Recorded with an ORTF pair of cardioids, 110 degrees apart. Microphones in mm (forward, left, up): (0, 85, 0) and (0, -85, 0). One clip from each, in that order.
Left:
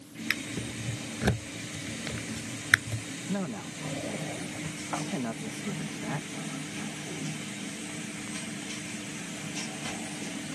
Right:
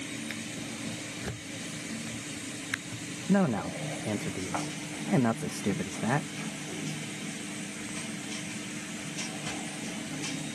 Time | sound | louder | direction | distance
0.3 | a drawer | left 5 dB | 60° left | ?
3.3 | a man speaking | right 10 dB | 50° right | ?